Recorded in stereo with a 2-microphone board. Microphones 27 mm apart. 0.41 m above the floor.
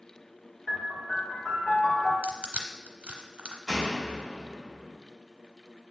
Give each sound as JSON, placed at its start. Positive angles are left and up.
{"t": 0.7, "sound": "a piano", "side_deg": 25, "distance_m": 1.3}
{"t": 2.2, "sound": "crushing", "side_deg": -60, "distance_m": 0.8}
{"t": 3.7, "sound": "a door slam", "side_deg": 25, "distance_m": 1.6}